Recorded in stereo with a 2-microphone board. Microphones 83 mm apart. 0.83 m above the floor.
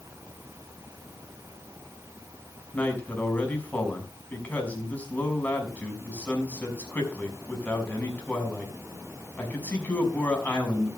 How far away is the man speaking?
About 5.5 m.